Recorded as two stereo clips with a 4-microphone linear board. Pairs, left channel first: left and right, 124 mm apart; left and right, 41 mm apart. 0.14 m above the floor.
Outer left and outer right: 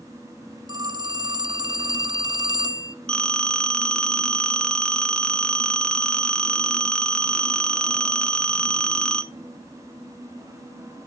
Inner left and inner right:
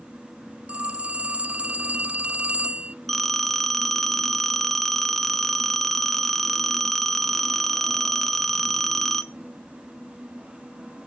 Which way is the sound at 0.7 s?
35° right (ahead or behind).